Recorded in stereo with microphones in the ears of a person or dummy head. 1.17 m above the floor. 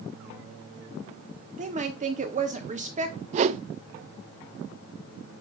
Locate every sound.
1.6 s a woman speaking: 30° right (ahead or behind), 1.2 m
3.3 s a whoosh: 40° right (ahead or behind), 0.5 m